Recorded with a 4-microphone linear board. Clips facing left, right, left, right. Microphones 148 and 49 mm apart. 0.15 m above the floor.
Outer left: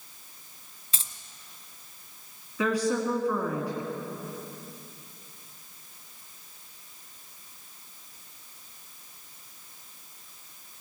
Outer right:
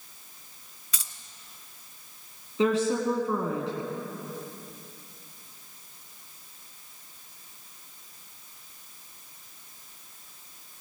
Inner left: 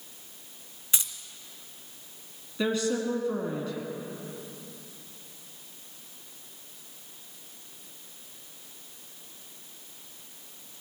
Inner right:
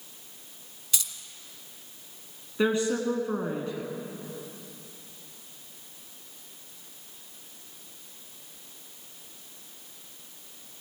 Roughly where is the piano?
No piano in this recording.